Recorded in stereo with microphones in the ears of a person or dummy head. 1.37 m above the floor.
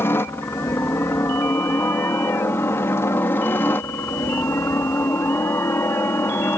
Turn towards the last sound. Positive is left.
turn(degrees=10)  # may be behind; listen again after turning